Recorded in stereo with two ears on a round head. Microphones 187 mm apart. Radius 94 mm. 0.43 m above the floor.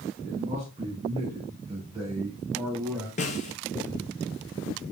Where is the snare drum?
35° left (ahead or behind), 1.6 m.